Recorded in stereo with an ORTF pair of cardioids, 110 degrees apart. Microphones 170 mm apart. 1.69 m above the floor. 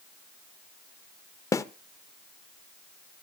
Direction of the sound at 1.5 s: 20° left.